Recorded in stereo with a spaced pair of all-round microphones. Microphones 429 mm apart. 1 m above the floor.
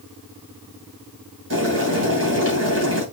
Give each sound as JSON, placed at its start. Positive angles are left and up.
{"t": 1.5, "sound": "boiling", "side_deg": -35, "distance_m": 2.5}